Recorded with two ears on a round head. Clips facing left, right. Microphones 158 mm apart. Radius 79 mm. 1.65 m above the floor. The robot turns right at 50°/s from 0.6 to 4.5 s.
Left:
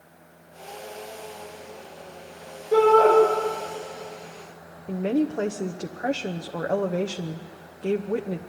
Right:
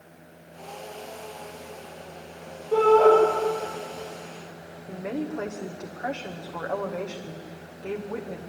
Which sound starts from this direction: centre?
A shout, at 2.7 s.